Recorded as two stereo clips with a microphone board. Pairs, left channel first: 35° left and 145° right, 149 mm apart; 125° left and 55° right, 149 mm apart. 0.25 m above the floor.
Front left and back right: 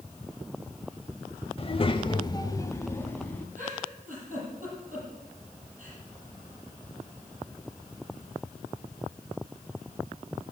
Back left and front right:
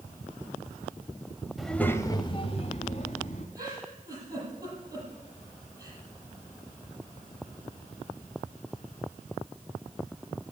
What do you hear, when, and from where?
1.6 s a child speaking: 30° left, 0.8 m; by 3.5 s 110° left, 1.5 m
3.5 s a giggle: 120° right, 8 m